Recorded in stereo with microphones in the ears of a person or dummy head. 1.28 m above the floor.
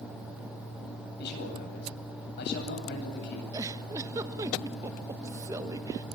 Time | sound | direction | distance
1.2 | a man speaking | 65° left (ahead or behind) | 9 m
3.5 | a giggle | 20° right (ahead or behind) | 1.3 m